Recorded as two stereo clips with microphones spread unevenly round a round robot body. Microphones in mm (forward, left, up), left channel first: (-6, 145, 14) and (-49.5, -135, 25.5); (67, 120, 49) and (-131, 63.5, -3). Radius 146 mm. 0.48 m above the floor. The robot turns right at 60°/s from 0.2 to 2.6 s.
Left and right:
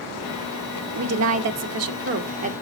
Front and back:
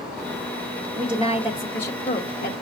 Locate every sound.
0.9 s a woman speaking: 125° right, 1.1 m; by 2.5 s 30° right, 1.1 m